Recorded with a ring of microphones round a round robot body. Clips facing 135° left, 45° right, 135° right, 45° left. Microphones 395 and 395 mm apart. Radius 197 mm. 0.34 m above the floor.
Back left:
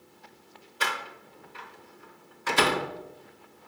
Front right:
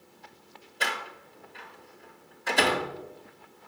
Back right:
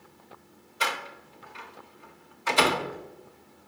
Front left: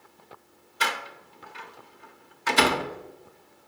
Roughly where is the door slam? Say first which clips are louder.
Even, front left 1 dB; left.